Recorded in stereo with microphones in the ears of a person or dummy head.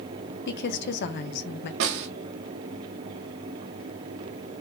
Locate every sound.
0.5 s a woman speaking: 50° left (ahead or behind), 0.7 m
1.8 s a snare drum: 60° right (ahead or behind), 0.8 m